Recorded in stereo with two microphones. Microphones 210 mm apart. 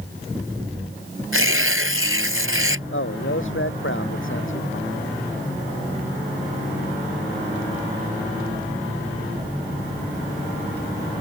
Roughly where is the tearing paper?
Right.